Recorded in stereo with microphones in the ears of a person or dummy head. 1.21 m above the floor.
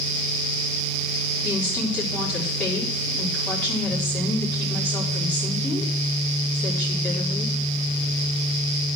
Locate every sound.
1.4 s a woman speaking: 10° left (ahead or behind), 3 m